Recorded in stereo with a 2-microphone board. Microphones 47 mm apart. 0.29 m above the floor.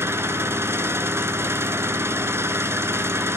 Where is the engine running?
80° right, 0.8 m.